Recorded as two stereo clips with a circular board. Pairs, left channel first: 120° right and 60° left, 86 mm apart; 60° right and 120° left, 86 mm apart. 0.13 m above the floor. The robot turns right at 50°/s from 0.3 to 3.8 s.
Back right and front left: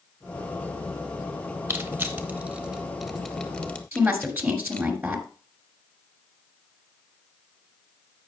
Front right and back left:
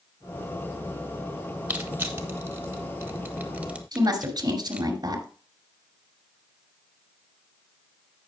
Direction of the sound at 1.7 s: 75° left.